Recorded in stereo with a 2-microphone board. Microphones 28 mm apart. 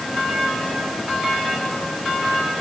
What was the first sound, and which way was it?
Only background noise.